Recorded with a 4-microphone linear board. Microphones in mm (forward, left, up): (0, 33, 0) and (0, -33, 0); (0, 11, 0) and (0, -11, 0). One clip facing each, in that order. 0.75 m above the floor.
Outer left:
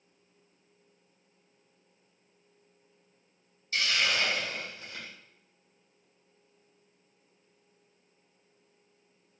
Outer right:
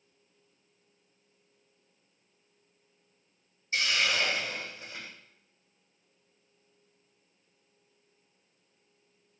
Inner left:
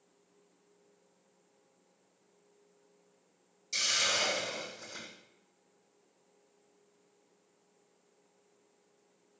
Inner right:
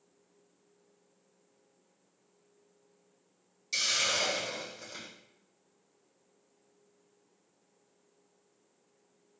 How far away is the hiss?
About 2.5 m.